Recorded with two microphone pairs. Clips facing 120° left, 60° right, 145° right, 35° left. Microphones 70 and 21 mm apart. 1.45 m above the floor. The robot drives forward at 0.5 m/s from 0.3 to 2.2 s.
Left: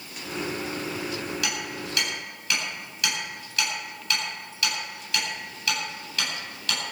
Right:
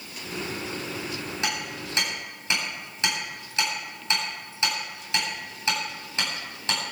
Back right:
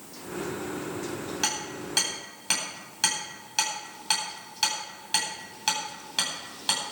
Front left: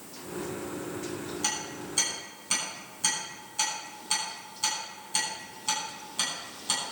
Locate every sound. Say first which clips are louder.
1.4 s hammering: even, back right 3 dB; 125° right, 9.5 m